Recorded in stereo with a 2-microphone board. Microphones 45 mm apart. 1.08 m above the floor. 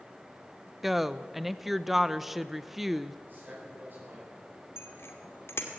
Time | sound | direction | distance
0.8 | a woman speaking | 5° right (ahead or behind) | 0.7 m
3.2 | a man speaking | 45° right (ahead or behind) | 9 m
4.8 | a bicycle bell | 60° left (ahead or behind) | 2 m